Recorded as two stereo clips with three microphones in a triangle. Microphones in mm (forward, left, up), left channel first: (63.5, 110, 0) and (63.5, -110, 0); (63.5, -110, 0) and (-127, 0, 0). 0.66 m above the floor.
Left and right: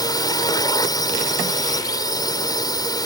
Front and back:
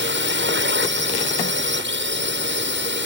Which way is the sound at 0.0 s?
160° left.